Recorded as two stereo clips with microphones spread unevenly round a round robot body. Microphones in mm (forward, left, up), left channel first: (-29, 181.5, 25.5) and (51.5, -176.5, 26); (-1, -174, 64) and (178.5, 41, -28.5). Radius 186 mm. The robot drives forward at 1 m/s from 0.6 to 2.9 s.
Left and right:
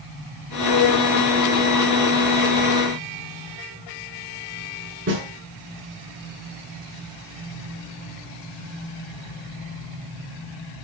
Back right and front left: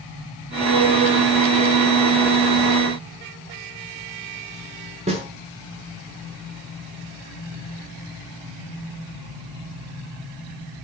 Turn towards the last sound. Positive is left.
turn(degrees=-20)